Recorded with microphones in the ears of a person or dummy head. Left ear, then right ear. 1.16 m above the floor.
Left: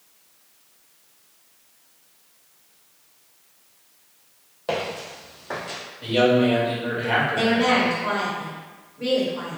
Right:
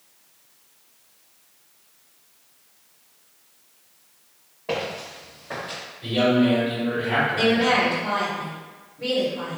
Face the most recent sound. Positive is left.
turn(degrees=50)  # may be behind; listen again after turning